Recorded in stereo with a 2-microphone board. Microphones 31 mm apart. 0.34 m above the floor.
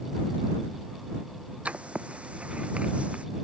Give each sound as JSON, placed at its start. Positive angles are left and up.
{"t": 1.6, "sound": "writing", "side_deg": -45}